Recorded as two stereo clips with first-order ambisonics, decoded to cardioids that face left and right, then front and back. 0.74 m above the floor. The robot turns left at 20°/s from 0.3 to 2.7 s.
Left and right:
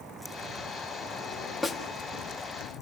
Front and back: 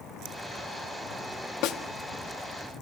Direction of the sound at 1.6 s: 5° left.